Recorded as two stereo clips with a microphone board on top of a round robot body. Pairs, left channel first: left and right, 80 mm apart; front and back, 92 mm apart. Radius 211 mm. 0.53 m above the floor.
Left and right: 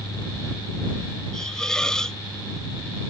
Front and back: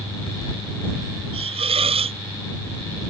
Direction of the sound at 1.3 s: 170° left.